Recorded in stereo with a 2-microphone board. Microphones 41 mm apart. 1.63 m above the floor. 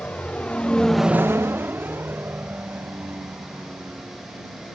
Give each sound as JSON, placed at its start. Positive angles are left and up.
{"t": 0.0, "sound": "a vehicle", "side_deg": 40}